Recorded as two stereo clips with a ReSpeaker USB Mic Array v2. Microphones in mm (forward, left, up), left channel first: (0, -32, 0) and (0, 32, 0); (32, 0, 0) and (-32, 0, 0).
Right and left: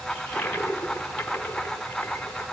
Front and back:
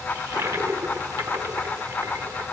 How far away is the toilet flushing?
About 5 m.